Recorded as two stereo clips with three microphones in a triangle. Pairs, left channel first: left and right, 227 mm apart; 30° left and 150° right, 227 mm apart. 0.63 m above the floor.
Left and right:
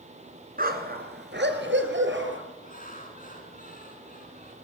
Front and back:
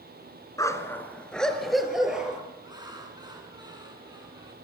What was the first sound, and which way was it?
A dog barking, 45° right.